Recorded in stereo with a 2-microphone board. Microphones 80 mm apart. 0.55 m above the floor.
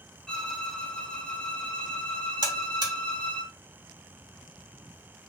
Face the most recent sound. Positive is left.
turn(degrees=-60)  # may be behind; listen again after turning